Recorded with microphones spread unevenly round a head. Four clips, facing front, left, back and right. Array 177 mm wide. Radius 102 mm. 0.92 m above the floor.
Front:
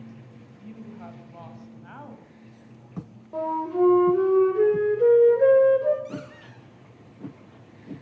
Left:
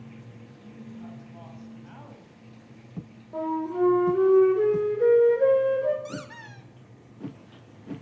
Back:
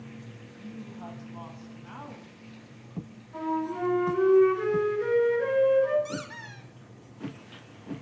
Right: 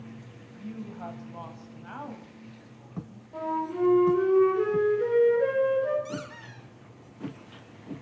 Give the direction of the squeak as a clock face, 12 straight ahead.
9 o'clock.